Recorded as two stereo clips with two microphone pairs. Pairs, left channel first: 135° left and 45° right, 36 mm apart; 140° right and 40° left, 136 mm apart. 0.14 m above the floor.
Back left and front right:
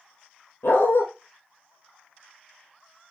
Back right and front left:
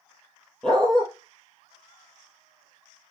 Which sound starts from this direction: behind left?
A dog barking, at 0.6 s.